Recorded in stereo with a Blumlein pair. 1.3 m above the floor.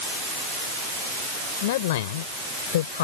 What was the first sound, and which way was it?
A man speaking, 55° left.